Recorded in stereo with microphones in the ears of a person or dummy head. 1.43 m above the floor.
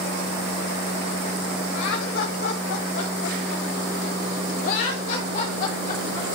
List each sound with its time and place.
1.7 s laughter: 75° left (ahead or behind), 1.9 m; by 6.4 s 35° left (ahead or behind), 4 m